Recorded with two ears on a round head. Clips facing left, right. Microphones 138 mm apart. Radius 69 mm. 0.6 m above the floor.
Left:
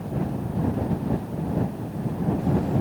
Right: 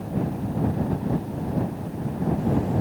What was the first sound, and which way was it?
Only background noise.